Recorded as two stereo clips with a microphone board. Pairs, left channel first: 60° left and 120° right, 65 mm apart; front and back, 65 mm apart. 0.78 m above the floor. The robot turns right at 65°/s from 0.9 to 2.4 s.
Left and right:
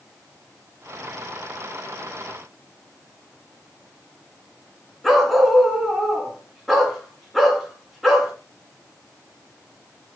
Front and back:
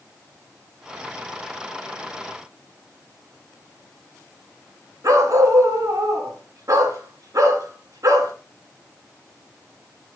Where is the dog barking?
150° left, 2.5 m.